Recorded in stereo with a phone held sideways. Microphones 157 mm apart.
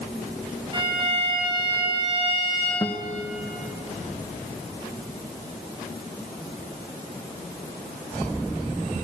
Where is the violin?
35° right (ahead or behind), 4 m.